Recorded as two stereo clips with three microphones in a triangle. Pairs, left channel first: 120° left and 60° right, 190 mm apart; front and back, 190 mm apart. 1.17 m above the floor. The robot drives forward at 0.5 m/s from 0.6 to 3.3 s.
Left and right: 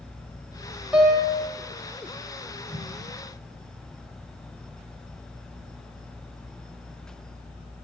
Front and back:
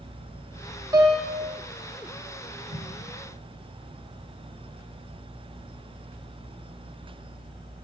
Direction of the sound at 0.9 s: 135° right.